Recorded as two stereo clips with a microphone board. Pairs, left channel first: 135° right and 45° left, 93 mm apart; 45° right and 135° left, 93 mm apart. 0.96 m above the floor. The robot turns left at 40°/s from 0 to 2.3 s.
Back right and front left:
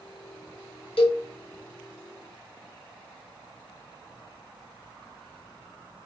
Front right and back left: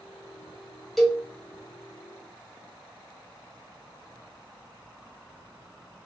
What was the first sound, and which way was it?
A cowbell, 130° right.